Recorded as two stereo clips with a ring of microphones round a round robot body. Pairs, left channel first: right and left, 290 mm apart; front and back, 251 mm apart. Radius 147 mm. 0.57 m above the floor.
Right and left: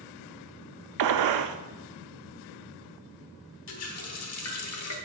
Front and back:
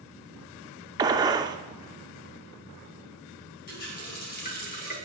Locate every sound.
1.0 s a gunshot: 105° left, 0.6 m
3.7 s a running tap: 55° right, 1.0 m